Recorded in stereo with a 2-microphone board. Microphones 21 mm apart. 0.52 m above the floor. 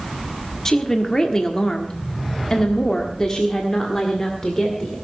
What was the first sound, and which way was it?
A woman speaking, 20° left (ahead or behind).